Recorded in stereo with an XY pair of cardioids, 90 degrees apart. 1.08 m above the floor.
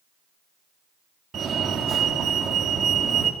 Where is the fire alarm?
60° right, 4 m.